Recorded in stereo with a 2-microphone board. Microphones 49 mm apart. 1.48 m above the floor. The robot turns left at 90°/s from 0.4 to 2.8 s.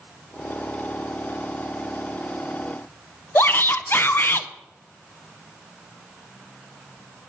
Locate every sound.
3.4 s a shout: 45° left (ahead or behind), 0.8 m